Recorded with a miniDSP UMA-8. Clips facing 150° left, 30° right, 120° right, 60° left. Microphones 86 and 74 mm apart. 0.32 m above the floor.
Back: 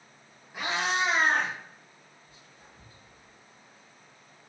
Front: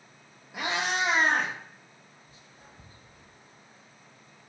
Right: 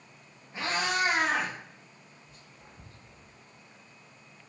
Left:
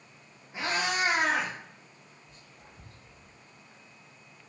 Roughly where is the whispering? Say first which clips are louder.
Front 1 dB, even; ahead right.